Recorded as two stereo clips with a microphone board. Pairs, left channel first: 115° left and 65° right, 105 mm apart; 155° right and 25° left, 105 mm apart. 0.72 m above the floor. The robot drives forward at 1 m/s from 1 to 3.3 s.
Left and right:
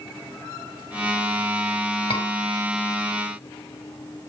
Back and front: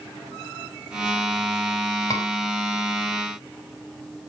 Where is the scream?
145° left, 5.5 m.